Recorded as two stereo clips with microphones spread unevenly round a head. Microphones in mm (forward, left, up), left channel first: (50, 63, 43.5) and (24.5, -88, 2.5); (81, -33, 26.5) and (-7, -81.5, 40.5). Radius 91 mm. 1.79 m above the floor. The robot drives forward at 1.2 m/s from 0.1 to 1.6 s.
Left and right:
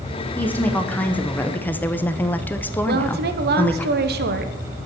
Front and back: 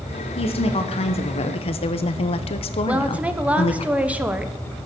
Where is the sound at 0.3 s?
5° left, 2 m; by 3.9 s 20° left, 0.8 m.